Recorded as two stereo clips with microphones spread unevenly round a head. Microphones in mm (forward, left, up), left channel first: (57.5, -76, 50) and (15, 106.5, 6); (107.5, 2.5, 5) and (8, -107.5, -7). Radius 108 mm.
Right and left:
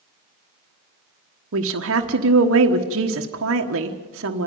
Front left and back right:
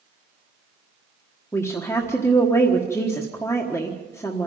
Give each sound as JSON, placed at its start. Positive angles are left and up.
{"t": 1.5, "sound": "a woman speaking", "azimuth_deg": 125, "distance_m": 1.3}